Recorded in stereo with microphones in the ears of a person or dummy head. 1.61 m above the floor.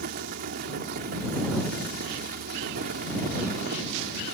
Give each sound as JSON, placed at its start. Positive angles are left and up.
{"t": 0.0, "sound": "a fan", "side_deg": -50}